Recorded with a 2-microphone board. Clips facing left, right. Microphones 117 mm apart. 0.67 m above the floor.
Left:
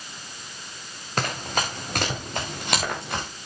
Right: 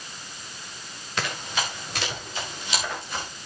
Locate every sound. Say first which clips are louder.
1.2 s running footsteps: left 3 dB; 45° left (ahead or behind), 4 m; by 3.3 s 65° left (ahead or behind), 4 m